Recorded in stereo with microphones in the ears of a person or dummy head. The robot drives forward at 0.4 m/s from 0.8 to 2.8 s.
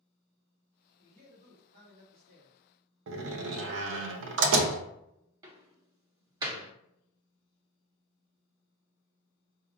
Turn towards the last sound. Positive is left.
turn(degrees=-25)  # may be behind; listen again after turning